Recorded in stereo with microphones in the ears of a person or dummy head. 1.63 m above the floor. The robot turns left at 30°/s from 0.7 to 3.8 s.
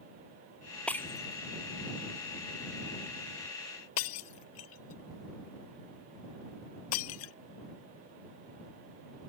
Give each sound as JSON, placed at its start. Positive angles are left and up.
{"t": 0.9, "sound": "breaking glass", "side_deg": 5}